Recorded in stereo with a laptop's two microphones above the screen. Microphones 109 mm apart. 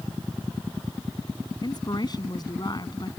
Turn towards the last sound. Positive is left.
turn(degrees=40)  # may be behind; listen again after turning